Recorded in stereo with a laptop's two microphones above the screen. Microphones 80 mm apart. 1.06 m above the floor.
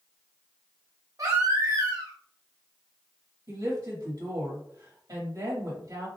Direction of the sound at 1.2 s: 45° right (ahead or behind).